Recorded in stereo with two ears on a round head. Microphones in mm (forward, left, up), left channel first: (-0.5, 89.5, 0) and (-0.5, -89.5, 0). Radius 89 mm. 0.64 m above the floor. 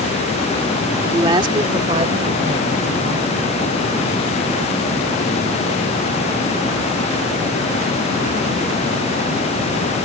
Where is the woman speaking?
15° right (ahead or behind); by 3.3 s 35° right (ahead or behind).